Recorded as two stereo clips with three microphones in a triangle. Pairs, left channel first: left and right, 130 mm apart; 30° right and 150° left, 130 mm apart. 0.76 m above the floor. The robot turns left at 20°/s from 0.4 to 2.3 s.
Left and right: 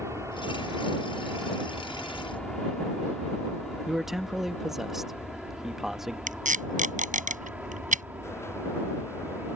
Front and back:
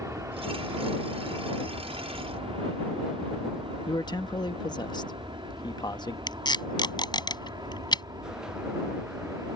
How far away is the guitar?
I don't hear a guitar.